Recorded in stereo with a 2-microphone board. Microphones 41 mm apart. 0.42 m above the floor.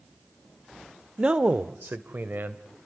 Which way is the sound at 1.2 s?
25° right (ahead or behind).